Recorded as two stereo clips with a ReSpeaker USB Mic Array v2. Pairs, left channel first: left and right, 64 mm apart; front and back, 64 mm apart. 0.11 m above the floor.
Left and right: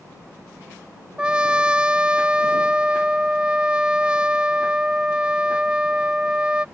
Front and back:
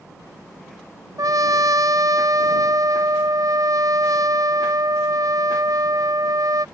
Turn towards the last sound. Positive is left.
turn(degrees=-165)